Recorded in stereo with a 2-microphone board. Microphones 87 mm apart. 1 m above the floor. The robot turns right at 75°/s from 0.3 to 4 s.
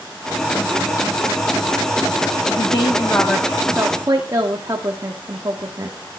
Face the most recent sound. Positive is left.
turn(degrees=-140)